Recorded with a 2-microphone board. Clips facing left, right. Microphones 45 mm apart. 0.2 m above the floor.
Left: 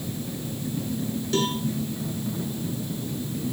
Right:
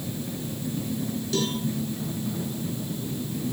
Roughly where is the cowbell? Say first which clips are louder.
Left 2 dB; left.